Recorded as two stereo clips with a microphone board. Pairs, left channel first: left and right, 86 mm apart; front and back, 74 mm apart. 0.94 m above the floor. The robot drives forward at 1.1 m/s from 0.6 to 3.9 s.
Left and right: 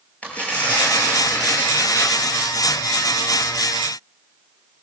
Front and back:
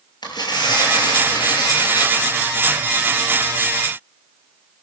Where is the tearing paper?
20° left, 6 m; by 2.2 s 25° left, 4.5 m.